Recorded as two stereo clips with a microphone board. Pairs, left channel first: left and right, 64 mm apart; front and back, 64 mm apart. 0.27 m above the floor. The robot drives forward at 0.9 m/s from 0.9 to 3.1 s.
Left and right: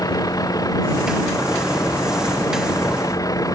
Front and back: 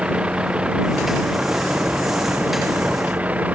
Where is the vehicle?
105° left; by 3.5 s 115° left.